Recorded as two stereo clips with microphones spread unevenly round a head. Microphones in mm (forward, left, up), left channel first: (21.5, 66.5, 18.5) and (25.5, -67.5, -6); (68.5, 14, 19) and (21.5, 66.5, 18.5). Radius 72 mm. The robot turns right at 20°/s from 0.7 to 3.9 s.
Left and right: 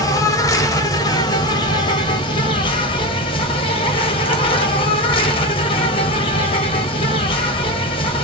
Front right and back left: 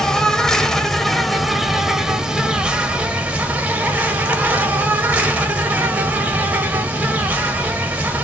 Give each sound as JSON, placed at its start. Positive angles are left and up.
{"t": 0.0, "sound": "an insect", "azimuth_deg": 30, "distance_m": 0.9}